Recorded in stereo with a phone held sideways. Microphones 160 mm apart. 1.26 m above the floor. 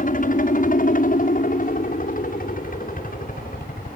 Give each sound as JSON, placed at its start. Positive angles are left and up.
{"t": 0.0, "sound": "a helicopter", "side_deg": 55}